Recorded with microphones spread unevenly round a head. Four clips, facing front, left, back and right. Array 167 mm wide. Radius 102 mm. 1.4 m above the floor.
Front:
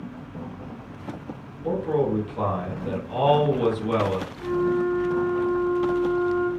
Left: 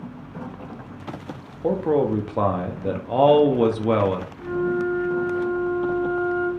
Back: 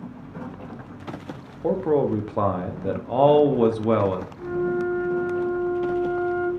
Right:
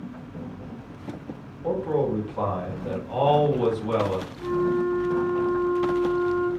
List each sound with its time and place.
1.6 s a man speaking: 140° left, 0.7 m
4.4 s a flute: 170° right, 1.7 m